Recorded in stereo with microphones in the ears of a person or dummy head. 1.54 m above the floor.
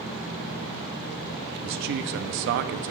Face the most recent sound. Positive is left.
turn(degrees=-60)  # may be behind; listen again after turning